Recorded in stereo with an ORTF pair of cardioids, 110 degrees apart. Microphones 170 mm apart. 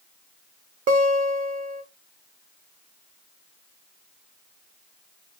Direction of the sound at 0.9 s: 55° right.